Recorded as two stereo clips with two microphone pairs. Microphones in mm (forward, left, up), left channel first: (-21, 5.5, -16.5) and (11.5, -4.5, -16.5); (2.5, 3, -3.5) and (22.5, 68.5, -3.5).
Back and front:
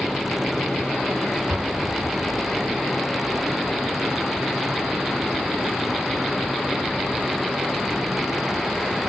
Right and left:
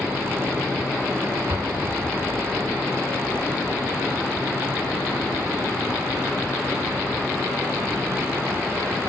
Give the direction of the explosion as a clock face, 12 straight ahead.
10 o'clock.